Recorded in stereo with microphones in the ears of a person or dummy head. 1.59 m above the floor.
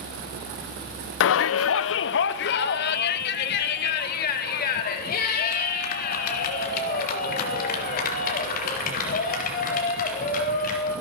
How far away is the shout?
About 0.7 m.